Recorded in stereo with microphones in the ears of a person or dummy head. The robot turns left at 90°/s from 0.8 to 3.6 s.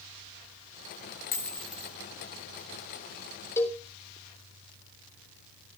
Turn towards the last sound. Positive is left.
turn(degrees=15)  # may be behind; listen again after turning